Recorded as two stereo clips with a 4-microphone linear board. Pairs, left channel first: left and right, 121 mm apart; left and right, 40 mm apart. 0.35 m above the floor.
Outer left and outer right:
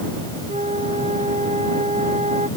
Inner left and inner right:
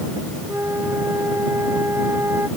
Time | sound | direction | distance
0.5 | a flute | 70° right (ahead or behind) | ?